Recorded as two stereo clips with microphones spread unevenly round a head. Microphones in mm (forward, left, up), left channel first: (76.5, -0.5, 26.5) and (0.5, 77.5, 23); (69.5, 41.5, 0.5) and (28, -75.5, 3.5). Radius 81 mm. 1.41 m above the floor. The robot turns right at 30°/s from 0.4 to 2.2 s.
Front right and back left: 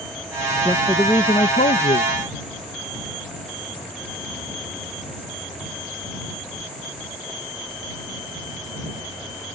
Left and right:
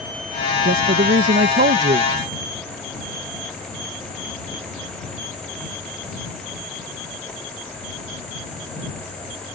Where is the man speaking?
125° right; by 2.1 s 80° right.